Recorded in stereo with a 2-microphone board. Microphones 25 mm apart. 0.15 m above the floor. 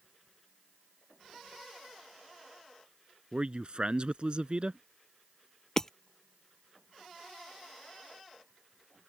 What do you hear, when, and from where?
3.3 s a man speaking: 45° right (ahead or behind)
5.8 s hammering: 20° left (ahead or behind)